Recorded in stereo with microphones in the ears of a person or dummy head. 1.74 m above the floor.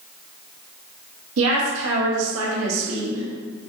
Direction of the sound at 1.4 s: 85° right.